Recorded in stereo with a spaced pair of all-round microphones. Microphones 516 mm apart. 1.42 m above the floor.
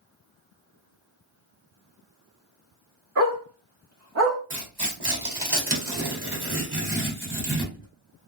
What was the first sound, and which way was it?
A dog barking, 25° right (ahead or behind).